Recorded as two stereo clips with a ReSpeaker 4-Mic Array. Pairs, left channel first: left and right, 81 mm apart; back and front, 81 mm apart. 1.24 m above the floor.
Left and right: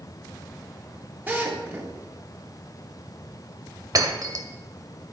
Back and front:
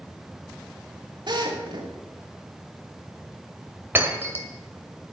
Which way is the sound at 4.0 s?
60° right.